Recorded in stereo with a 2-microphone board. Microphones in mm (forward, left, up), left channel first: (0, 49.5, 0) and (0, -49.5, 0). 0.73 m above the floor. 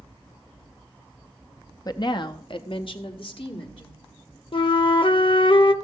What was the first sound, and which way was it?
A woman speaking, 40° left (ahead or behind).